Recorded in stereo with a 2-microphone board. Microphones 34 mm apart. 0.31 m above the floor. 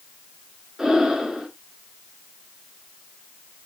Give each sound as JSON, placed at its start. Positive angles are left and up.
{"t": 0.8, "sound": "breathing", "side_deg": -10, "distance_m": 4.0}